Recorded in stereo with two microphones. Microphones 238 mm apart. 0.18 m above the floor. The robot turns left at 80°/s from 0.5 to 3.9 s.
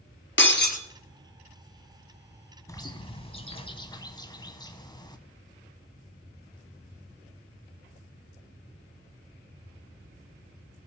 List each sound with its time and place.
0.4 s breaking glass: 55° left (ahead or behind), 0.9 m; by 0.8 s 30° left (ahead or behind), 0.9 m
2.7 s a bird: 15° left (ahead or behind), 0.8 m